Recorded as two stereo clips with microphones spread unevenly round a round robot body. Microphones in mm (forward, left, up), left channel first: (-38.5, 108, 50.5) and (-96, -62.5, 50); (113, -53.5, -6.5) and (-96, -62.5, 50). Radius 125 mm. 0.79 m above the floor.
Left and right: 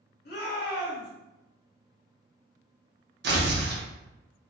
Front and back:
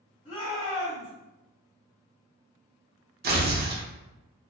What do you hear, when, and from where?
0.2 s a shout: 90° left, 1.6 m
3.2 s tearing paper: 135° right, 0.7 m